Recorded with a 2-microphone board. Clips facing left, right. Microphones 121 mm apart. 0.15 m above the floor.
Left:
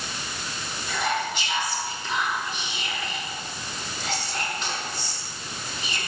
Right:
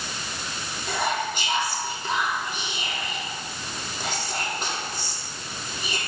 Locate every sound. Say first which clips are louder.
0.9 s whispering: right 1 dB; 55° right (ahead or behind), 6 m